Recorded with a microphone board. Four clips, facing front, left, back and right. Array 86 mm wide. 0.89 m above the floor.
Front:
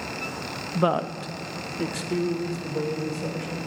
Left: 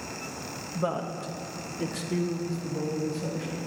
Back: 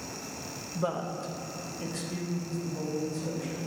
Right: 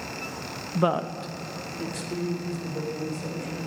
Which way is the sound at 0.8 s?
50° right.